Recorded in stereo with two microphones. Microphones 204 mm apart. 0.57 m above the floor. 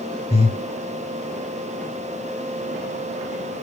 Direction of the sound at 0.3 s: 30° left (ahead or behind).